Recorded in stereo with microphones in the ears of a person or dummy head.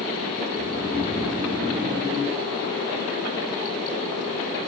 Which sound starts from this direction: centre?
Snoring, at 0.5 s.